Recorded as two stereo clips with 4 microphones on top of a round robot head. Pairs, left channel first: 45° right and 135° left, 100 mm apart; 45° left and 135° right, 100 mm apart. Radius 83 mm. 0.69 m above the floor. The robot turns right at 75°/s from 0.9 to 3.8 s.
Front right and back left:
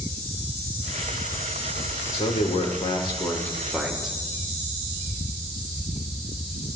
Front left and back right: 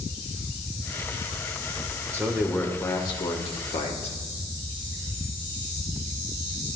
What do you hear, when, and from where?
2.1 s a man speaking: 75° right, 2.5 m; by 4.2 s 50° left, 2.5 m